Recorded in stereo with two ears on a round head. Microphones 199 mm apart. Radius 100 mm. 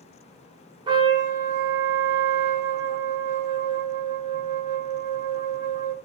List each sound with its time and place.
0.9 s a trumpet: 20° right (ahead or behind), 0.7 m